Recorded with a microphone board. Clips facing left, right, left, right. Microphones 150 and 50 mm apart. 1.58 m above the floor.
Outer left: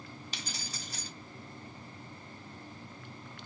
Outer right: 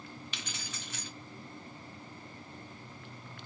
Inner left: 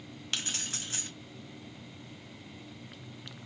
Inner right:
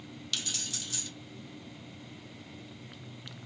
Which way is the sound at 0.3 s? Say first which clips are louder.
Outer left 1 dB, inner left 2 dB; 35° left (ahead or behind).